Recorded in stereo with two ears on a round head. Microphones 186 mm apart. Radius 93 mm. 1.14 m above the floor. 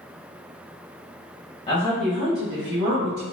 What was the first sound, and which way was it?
A woman speaking, 25° left (ahead or behind).